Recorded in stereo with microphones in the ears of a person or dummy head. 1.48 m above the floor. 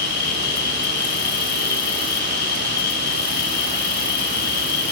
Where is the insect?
60° left (ahead or behind), 1.3 m.